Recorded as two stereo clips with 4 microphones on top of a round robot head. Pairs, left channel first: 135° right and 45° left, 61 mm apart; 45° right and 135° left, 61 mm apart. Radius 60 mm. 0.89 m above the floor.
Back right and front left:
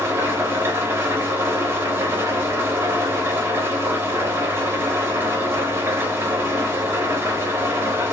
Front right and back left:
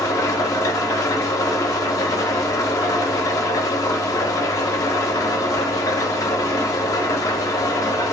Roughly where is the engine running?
Ahead.